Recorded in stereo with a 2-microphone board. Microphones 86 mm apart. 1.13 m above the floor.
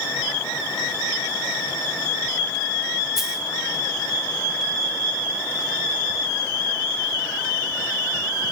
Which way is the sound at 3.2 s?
5° right (ahead or behind).